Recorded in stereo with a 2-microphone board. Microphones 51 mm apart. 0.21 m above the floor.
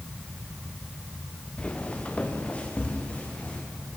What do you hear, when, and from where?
1.6 s footsteps: 25° left (ahead or behind), 2.5 m; by 3.6 s 30° left (ahead or behind), 5 m